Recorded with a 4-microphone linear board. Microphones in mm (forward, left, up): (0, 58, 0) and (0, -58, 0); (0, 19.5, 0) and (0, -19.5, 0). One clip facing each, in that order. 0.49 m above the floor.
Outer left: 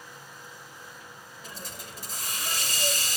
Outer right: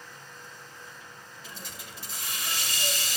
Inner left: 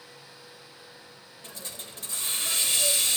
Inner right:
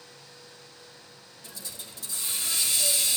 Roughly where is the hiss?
Left.